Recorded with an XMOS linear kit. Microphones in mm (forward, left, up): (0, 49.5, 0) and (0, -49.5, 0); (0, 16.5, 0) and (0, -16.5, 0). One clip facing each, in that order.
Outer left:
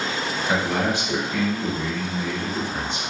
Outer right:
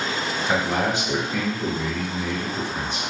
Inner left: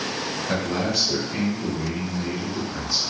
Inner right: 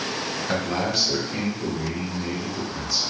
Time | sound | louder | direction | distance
0.5 | a man speaking | even, even | 30° right (ahead or behind) | 1.8 m